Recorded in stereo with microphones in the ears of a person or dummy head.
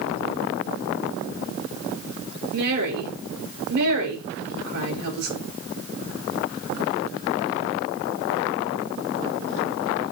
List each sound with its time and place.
2.5 s a woman speaking: 60° right (ahead or behind), 6 m